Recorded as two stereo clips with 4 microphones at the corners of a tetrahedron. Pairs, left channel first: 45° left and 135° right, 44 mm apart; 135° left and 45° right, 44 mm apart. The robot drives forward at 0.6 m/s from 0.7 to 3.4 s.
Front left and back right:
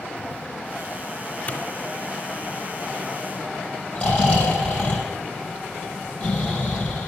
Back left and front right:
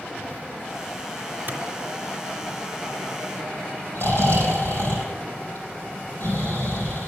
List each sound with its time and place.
1.5 s a clap: 5° right, 2 m
4.0 s snoring: 110° left, 5.5 m